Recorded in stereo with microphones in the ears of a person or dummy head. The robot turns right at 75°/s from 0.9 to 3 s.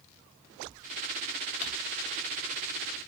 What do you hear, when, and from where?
1.6 s crumpling: 40° left (ahead or behind), 2.0 m; by 1.7 s 45° left (ahead or behind), 2.0 m